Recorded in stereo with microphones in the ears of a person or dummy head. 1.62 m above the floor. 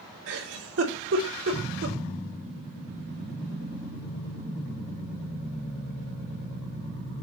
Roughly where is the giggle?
Right.